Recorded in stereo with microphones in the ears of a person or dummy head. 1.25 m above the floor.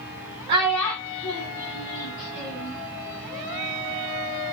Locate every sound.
0.5 s a child speaking: 20° right (ahead or behind), 0.5 m; by 2.8 s 70° left (ahead or behind), 1.4 m